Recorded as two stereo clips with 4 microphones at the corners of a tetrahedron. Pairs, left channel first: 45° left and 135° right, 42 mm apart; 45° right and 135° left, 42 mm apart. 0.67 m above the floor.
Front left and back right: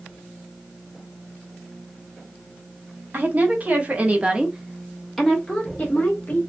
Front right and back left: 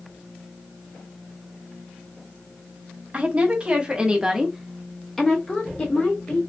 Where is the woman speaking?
170° right, 1.2 m; by 6.4 s straight ahead, 1.0 m.